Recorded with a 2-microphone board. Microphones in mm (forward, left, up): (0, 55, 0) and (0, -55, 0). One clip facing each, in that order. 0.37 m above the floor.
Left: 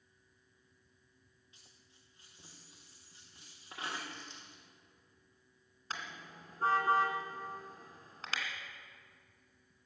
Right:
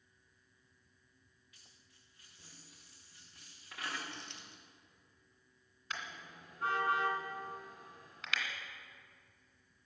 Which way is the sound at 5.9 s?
35° left (ahead or behind).